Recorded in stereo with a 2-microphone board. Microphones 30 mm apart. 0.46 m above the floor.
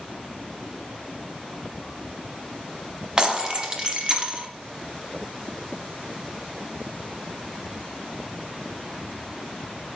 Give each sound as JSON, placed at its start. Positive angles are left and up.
{"t": 3.2, "sound": "breaking glass", "side_deg": -25, "distance_m": 1.3}